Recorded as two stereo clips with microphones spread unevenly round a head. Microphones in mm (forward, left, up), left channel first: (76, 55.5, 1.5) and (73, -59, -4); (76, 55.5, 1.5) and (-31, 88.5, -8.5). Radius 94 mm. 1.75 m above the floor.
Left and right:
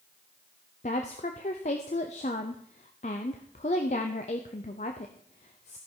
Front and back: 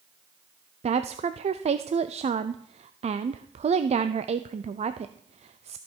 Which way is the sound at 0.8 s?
135° left.